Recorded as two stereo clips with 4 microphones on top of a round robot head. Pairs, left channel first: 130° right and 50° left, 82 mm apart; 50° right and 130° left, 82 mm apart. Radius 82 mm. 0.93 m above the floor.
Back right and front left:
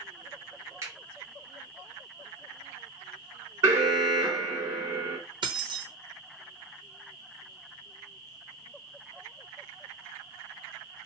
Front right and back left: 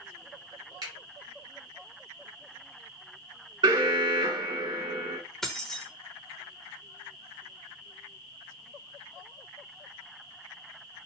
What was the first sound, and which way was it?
A finger snap, 105° left.